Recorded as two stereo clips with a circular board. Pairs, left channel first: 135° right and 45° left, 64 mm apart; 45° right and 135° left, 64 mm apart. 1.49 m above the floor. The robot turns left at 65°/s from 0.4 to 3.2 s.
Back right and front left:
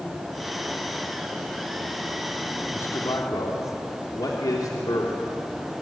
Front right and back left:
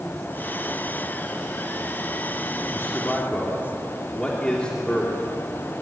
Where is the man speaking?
85° right, 3 m; by 5.2 s 120° right, 3 m.